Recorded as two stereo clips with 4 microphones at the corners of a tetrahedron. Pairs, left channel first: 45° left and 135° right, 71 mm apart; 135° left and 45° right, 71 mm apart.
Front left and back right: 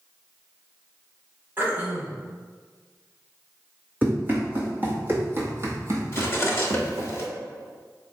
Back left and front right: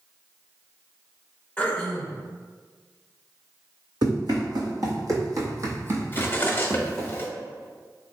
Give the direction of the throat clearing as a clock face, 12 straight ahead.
6 o'clock.